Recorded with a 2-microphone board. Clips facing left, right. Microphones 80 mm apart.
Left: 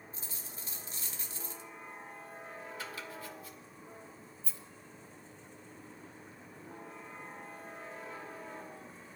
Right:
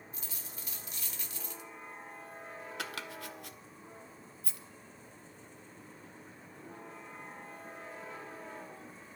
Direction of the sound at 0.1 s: 30° left (ahead or behind).